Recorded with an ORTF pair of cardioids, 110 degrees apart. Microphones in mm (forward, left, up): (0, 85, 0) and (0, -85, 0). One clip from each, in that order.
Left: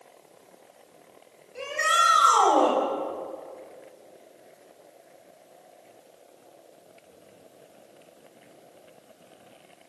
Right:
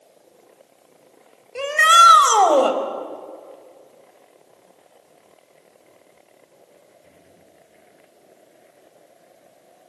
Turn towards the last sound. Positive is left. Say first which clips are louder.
# right 11 dB
turn(degrees=-60)